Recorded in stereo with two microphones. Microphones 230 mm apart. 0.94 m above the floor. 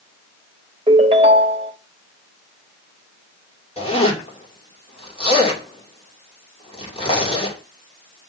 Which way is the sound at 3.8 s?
25° left (ahead or behind).